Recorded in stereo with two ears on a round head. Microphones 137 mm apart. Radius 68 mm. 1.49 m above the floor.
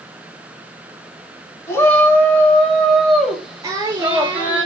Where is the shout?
20° left (ahead or behind), 4.5 m; by 4.6 s 15° right (ahead or behind), 5 m.